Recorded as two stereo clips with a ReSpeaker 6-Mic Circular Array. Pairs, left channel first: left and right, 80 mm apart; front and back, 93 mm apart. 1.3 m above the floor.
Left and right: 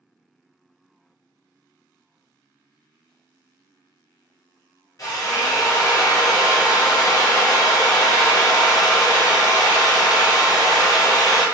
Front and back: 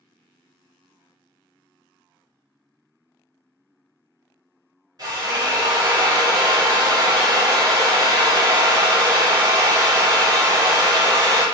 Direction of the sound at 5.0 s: 135° left.